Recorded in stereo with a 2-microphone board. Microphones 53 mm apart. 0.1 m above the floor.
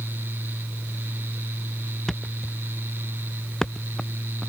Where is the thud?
10° left (ahead or behind).